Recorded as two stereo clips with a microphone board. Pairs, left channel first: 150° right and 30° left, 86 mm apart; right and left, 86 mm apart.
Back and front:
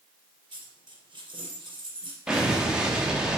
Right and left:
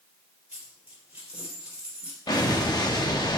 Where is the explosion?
50° right, 1.7 m.